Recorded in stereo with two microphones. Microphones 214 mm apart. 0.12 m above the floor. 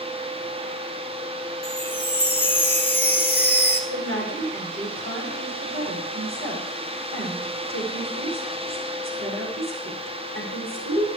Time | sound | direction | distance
1.6 | a chime | 55° left (ahead or behind) | 1.8 m
3.9 | a woman speaking | 75° right (ahead or behind) | 8 m